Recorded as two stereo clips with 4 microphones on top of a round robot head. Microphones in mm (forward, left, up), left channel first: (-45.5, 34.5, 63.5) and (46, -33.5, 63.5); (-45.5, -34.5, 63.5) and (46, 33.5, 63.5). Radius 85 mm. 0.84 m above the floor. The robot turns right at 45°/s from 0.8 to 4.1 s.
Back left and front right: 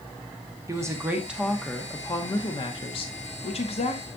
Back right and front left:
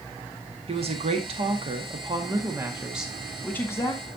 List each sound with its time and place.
0.7 s a woman speaking: 20° left, 1.9 m; by 4.1 s 170° left, 1.9 m